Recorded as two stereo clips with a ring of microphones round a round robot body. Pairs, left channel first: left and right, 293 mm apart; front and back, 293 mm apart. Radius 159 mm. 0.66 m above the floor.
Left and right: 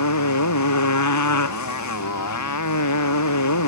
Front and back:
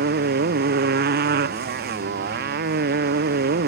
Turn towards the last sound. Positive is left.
turn(degrees=115)